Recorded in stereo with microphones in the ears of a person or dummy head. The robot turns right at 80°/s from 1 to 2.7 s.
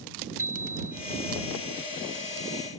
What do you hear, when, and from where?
0.4 s a bicycle bell: 10° right (ahead or behind)